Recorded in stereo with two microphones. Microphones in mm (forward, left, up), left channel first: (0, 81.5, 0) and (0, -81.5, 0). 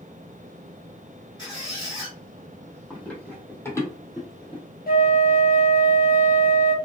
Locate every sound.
1.4 s a squeak: 30° left (ahead or behind), 2.5 m
2.9 s running footsteps: 5° left (ahead or behind), 2 m; by 4.6 s 30° left (ahead or behind), 1.8 m
4.9 s a flute: 65° left (ahead or behind), 0.7 m